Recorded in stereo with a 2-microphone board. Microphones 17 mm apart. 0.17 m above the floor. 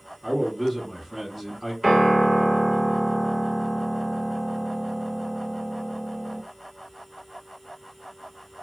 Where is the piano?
20° right (ahead or behind), 1.6 m.